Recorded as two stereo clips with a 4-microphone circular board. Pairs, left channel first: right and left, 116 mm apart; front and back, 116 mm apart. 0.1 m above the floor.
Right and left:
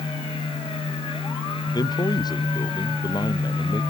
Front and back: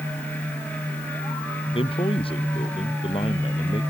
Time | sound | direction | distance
1.7 | a man speaking | 35° right | ?